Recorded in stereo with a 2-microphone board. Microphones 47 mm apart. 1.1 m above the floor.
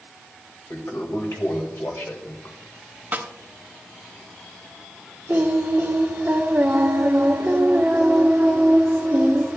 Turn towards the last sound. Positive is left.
turn(degrees=-40)  # may be behind; listen again after turning